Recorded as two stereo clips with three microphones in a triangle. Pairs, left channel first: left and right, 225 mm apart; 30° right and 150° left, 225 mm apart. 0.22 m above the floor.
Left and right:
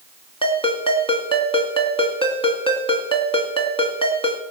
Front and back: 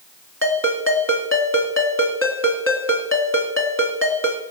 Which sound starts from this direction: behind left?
A ringtone, at 0.4 s.